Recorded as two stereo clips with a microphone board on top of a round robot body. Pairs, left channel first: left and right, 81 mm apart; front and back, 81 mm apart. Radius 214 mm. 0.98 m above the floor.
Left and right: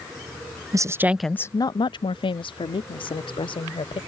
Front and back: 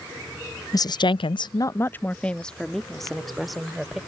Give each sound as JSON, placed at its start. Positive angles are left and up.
{"t": 0.7, "sound": "a woman speaking", "azimuth_deg": -45}